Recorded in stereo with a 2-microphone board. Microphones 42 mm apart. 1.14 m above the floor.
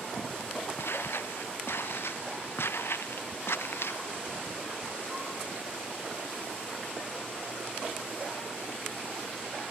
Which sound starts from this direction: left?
Footsteps, at 0.8 s.